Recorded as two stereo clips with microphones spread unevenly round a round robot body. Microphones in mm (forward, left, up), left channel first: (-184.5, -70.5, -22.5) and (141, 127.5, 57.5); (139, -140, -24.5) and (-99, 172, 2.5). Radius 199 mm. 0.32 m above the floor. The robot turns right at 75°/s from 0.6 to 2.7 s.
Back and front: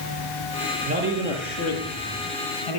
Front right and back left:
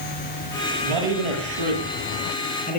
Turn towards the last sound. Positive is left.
turn(degrees=-120)